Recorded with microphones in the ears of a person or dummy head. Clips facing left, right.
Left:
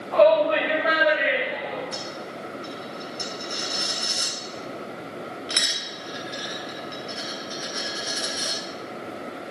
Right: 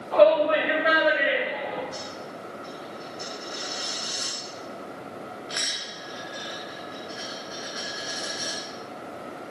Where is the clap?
No clap in this recording.